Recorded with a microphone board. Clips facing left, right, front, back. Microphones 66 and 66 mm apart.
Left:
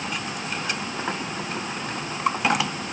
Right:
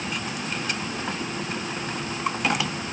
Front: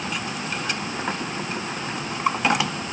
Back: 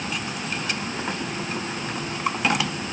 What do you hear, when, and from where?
Only background noise.